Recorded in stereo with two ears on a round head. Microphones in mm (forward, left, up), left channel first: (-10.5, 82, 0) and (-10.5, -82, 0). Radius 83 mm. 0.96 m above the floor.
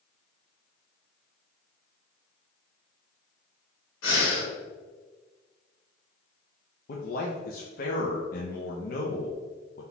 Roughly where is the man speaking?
Left.